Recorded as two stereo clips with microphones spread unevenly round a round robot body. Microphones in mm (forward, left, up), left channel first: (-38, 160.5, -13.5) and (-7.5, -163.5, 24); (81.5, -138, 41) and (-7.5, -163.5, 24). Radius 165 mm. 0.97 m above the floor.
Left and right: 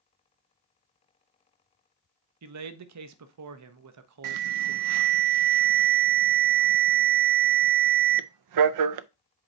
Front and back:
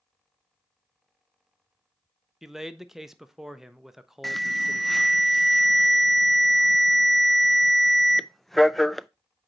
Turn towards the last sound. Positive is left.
turn(degrees=-80)